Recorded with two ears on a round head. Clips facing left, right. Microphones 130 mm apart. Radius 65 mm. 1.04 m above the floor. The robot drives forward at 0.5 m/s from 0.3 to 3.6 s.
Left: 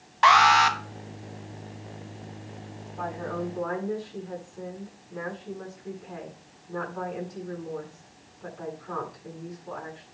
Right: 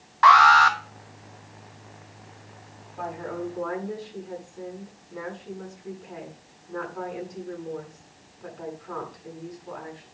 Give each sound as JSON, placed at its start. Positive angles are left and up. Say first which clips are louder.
{"t": 0.2, "sound": "an alarm", "louder": "right 3 dB", "side_deg": 25, "distance_m": 0.9}
{"t": 3.0, "sound": "a woman speaking", "louder": "even", "side_deg": 0, "distance_m": 7.5}